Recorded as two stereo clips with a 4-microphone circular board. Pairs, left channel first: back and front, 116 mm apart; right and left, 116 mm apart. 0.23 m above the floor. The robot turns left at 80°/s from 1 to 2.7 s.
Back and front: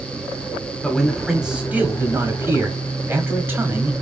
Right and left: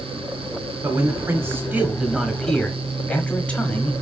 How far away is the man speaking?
About 1.1 m.